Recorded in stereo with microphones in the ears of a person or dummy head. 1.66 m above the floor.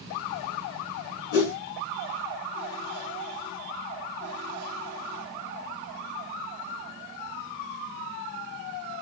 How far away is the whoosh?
About 3 m.